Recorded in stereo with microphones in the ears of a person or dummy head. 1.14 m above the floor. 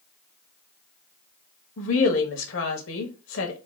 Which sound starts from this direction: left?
A woman speaking, at 1.8 s.